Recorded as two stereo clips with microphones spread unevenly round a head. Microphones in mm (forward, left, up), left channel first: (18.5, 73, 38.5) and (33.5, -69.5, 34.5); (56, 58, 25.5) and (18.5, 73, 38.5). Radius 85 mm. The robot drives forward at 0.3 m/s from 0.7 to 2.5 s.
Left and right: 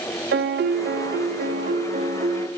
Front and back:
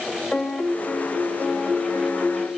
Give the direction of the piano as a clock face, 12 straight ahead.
3 o'clock.